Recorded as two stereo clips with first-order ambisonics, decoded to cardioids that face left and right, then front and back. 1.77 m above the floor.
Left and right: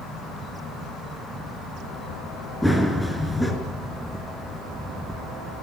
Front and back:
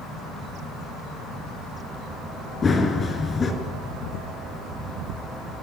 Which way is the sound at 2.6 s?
5° left.